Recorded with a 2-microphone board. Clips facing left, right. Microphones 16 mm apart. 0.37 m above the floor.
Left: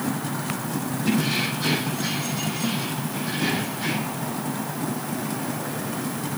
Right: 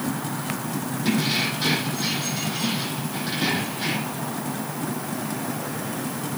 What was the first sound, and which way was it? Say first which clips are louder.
Keys jangling: right 1 dB; 35° right (ahead or behind).